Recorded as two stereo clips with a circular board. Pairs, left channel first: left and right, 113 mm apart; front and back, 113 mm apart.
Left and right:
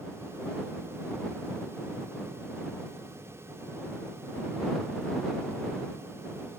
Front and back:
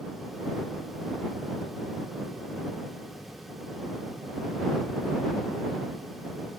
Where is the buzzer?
I don't hear a buzzer.